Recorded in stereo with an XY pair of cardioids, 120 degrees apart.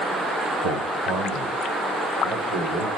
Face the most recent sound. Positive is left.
turn(degrees=-65)